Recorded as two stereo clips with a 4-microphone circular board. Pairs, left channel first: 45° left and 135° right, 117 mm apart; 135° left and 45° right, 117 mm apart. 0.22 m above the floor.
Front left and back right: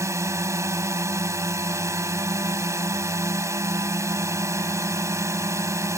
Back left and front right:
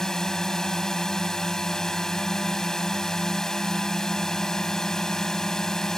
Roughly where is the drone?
Behind right.